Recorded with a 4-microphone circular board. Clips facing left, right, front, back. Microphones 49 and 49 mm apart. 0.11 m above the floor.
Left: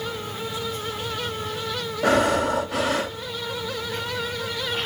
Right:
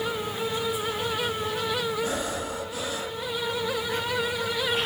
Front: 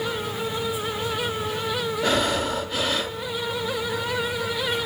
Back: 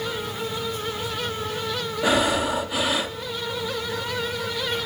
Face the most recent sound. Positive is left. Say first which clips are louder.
# left 10 dB, back 3 dB
turn(degrees=100)